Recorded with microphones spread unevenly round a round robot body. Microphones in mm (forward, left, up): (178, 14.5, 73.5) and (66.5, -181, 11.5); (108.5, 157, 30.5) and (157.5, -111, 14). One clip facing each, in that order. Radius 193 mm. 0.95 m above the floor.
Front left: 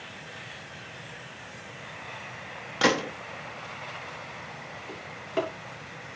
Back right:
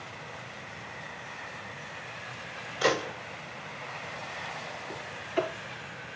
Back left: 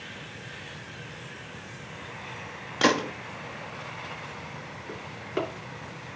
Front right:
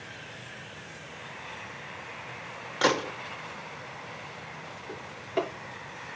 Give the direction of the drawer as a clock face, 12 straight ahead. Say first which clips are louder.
Even, even; 11 o'clock.